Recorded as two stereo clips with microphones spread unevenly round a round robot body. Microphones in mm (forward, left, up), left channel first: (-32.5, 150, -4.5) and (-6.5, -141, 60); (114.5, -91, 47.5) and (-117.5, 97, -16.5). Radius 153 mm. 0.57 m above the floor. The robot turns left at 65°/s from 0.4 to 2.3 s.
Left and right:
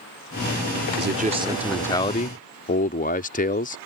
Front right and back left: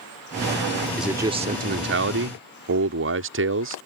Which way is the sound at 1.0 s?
140° right.